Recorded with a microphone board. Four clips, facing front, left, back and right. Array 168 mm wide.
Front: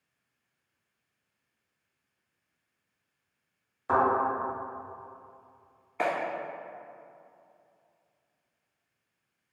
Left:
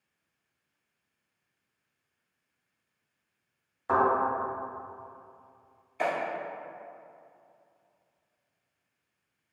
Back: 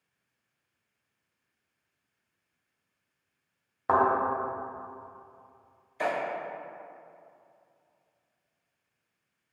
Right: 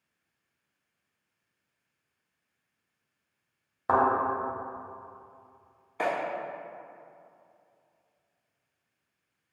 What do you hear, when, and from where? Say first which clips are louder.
3.9 s a thud: right 1 dB, back 1 dB; 135° right, 1.1 m
6.0 s a clap: even, front 1 dB; 30° right, 1.5 m